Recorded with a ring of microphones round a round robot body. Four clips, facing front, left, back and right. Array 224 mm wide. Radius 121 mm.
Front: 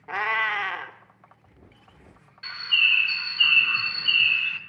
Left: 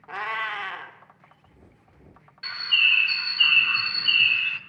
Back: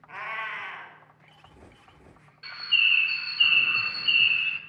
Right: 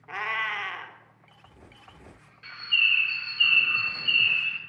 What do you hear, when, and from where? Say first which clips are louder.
0.1 s a cat meowing: left 1 dB, front 9 dB; 10° left, 0.9 m
2.4 s a bird: left 3 dB, front 2 dB; 60° left, 0.9 m